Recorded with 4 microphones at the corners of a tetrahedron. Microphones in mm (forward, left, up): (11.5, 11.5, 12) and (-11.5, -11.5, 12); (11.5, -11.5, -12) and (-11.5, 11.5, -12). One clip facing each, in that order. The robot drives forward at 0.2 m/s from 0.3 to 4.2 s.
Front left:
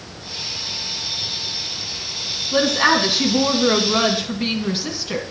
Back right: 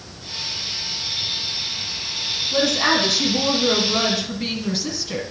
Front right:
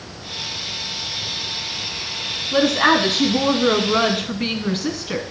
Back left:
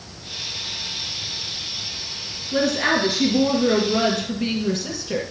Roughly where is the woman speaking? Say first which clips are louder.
Front left 3 dB, front right 4 dB; ahead.